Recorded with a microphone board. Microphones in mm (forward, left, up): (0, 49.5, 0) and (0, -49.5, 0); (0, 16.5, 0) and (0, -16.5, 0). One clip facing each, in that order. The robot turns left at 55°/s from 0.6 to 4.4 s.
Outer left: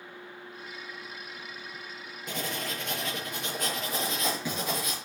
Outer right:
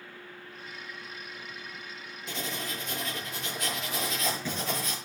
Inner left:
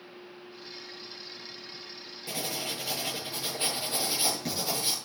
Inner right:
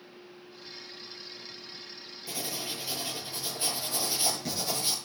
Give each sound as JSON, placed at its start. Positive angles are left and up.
{"t": 2.3, "sound": "writing", "azimuth_deg": 130, "distance_m": 7.0}